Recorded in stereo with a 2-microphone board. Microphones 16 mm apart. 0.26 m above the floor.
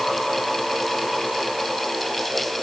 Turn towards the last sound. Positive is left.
No sound to turn to.